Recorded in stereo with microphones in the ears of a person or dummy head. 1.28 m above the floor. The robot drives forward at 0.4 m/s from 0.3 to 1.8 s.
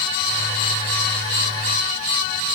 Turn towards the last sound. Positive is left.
No sound to turn to.